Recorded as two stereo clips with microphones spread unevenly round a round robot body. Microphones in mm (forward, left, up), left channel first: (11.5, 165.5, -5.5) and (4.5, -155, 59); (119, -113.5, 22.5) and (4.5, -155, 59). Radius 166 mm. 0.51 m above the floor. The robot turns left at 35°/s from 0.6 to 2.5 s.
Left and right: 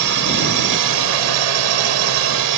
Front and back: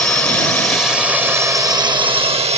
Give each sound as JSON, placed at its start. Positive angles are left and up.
{"t": 0.0, "sound": "a drone", "azimuth_deg": -55}